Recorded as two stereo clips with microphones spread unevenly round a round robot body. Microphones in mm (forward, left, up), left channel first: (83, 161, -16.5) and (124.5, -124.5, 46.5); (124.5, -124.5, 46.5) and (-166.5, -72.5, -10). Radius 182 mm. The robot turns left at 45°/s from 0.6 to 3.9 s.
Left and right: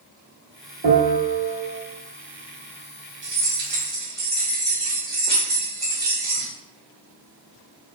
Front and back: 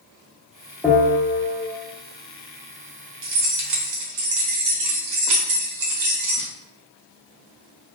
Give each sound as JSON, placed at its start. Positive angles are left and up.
{"t": 0.8, "sound": "a bell", "azimuth_deg": -115, "distance_m": 1.2}
{"t": 3.2, "sound": "keys jangling", "azimuth_deg": -145, "distance_m": 1.0}